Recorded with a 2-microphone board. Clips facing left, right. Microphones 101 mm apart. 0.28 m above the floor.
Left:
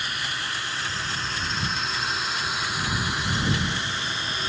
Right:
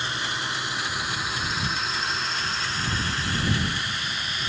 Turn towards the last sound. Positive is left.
turn(degrees=35)  # may be behind; listen again after turning